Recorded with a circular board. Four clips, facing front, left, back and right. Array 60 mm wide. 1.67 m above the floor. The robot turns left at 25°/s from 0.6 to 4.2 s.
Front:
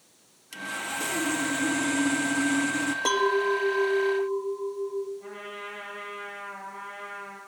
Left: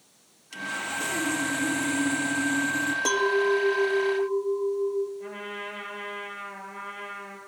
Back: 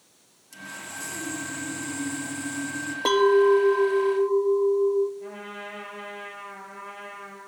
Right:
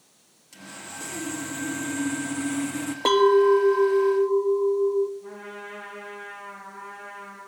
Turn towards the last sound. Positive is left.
turn(degrees=100)